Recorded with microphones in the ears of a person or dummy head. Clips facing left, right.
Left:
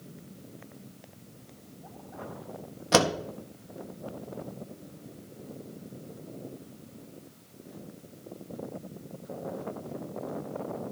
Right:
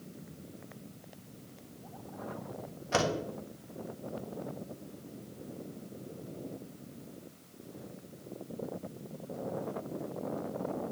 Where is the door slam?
70° left (ahead or behind), 1.5 m.